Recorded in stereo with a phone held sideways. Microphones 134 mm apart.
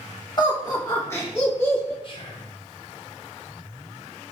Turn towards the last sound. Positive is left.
turn(degrees=40)  # may be behind; listen again after turning